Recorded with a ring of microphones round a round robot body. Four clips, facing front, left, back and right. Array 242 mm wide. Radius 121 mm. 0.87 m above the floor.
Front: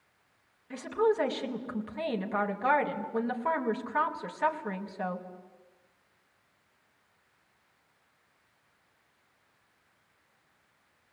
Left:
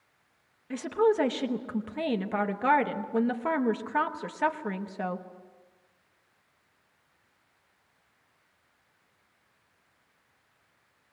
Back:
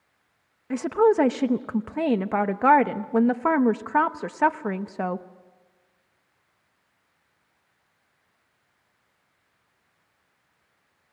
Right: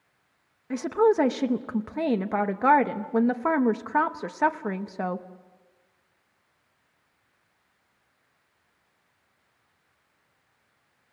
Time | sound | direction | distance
0.7 | a woman speaking | 155° right | 0.9 m